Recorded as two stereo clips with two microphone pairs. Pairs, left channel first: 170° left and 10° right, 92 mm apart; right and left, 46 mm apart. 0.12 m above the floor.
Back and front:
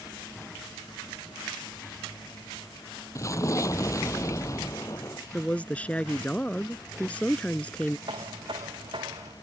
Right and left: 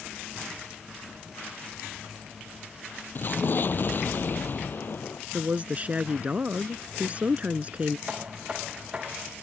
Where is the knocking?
20° left.